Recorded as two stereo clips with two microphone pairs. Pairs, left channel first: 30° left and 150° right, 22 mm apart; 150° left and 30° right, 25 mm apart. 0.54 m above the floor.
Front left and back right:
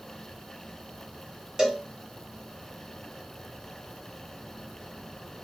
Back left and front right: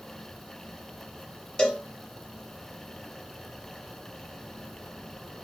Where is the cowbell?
175° left, 1.0 m.